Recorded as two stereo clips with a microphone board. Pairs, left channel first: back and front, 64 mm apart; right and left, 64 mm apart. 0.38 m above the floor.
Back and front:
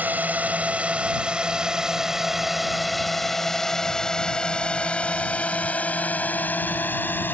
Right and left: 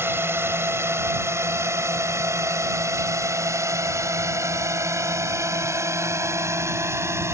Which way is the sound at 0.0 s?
55° left.